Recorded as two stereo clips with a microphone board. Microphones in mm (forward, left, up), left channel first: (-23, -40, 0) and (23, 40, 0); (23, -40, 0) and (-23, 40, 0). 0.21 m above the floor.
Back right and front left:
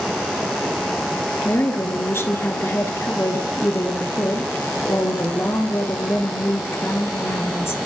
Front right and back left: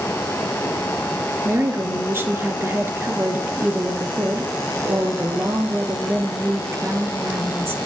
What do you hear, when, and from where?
1.4 s a woman speaking: straight behind, 3 m